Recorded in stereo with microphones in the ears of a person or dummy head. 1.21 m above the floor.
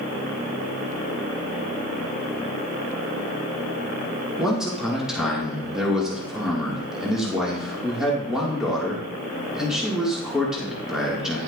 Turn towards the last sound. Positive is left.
turn(degrees=0)  # may be behind; listen again after turning